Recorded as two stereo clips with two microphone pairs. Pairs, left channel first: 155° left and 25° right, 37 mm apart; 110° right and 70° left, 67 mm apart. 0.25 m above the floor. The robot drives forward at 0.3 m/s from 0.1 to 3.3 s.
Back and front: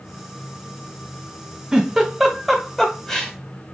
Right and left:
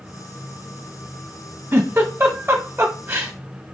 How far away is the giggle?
About 0.9 m.